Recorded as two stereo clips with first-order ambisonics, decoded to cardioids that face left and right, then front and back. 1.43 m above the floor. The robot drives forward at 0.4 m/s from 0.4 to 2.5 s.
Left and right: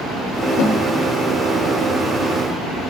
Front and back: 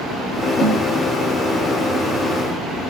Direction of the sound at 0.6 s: 65° left.